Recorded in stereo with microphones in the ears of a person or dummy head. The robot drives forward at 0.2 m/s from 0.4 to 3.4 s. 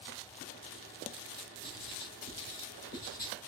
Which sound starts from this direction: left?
Writing, at 1.6 s.